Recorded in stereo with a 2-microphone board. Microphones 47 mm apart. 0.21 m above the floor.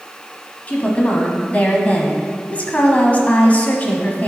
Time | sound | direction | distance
0.7 | a woman speaking | 35° left (ahead or behind) | 1.2 m